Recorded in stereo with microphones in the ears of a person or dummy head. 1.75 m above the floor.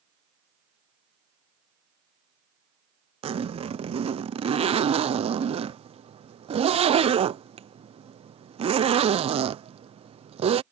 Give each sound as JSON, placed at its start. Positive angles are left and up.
{"t": 3.2, "sound": "a zipper", "side_deg": -30}